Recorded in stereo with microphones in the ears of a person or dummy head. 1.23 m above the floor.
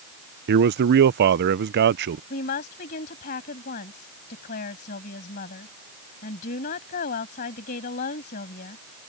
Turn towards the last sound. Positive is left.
turn(degrees=45)  # may be behind; listen again after turning